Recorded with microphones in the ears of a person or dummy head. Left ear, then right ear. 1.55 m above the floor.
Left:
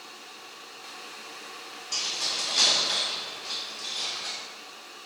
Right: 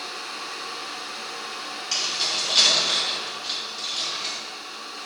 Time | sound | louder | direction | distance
1.9 | keys jangling | right 4 dB | 50° right (ahead or behind) | 1.7 m